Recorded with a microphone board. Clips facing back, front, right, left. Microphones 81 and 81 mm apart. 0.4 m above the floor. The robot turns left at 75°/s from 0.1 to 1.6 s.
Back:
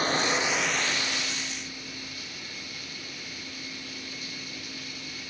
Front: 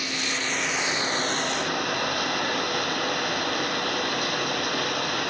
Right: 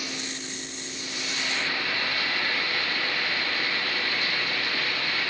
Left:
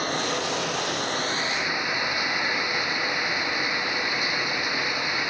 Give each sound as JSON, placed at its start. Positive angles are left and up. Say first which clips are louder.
{"t": 0.0, "sound": "running water", "louder": "back 4 dB, left 10 dB", "azimuth_deg": 130}